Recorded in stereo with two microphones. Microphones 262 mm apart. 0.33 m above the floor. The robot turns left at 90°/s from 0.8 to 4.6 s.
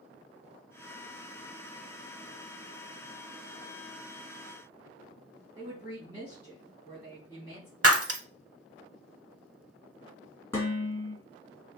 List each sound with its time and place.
5.5 s a woman speaking: 15° right (ahead or behind), 3.5 m
7.8 s breaking glass: 65° right (ahead or behind), 0.6 m
10.5 s dishes clattering: 10° left (ahead or behind), 2.5 m